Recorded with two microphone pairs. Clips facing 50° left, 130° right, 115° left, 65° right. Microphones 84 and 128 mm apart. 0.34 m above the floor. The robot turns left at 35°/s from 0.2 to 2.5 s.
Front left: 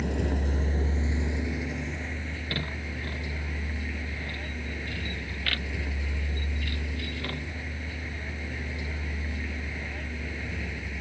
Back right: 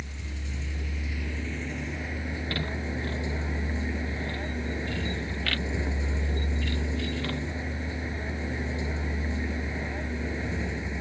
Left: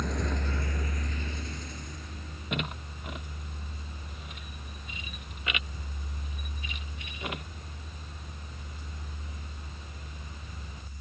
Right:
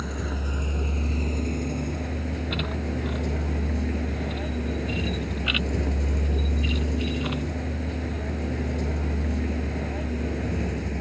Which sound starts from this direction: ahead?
A vehicle, at 0.0 s.